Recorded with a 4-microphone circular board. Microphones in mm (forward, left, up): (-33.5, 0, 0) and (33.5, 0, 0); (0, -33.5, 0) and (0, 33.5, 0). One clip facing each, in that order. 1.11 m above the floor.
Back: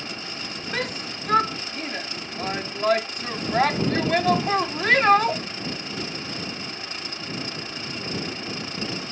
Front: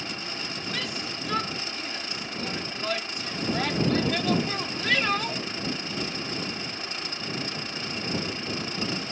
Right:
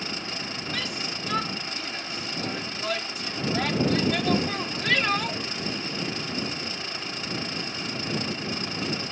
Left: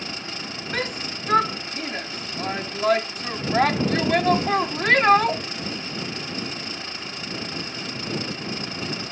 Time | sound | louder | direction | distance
0.7 | a shout | back 7 dB, left 7 dB | 135° left | ?